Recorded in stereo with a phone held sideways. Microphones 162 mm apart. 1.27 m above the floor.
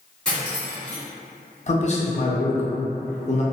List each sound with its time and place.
0.2 s cutlery clinking: 5° left (ahead or behind), 1.2 m
1.7 s a man speaking: 45° left (ahead or behind), 0.5 m